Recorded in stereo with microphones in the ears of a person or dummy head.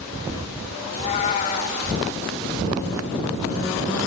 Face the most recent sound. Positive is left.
turn(degrees=25)  # may be behind; listen again after turning